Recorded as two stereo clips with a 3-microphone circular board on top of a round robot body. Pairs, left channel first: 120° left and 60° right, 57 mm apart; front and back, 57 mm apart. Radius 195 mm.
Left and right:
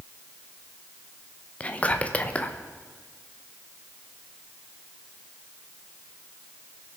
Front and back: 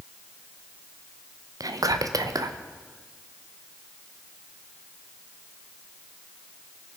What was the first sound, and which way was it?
Whispering, 175° right.